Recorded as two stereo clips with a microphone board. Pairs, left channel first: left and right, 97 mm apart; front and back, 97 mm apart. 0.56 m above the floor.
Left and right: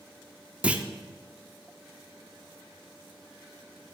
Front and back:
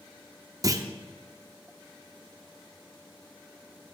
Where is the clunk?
160° right, 0.8 m.